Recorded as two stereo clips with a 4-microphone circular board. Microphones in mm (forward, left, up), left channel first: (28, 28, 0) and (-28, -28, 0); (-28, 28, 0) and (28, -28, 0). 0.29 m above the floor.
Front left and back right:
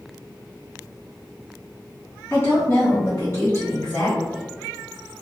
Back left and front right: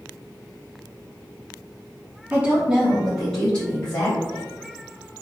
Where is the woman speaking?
10° left, 1.7 m; by 4.4 s 95° left, 1.9 m.